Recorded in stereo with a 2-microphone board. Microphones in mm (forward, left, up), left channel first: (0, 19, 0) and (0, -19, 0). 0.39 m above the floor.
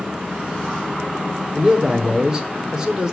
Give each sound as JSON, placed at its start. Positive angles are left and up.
{"t": 1.5, "sound": "a man speaking", "side_deg": -20, "distance_m": 0.9}